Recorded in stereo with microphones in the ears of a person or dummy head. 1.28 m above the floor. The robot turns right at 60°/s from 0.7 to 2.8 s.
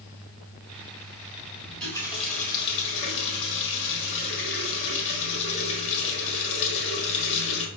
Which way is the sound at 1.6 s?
5° right.